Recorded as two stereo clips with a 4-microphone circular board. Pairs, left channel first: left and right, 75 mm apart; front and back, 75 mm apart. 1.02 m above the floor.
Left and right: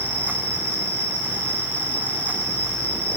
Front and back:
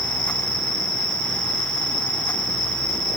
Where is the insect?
20° left, 1.9 m.